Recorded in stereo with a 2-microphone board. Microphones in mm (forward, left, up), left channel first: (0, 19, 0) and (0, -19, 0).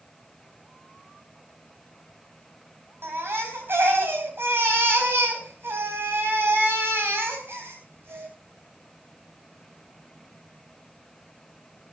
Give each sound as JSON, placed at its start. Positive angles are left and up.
{"t": 3.0, "sound": "a baby crying", "side_deg": -80, "distance_m": 4.0}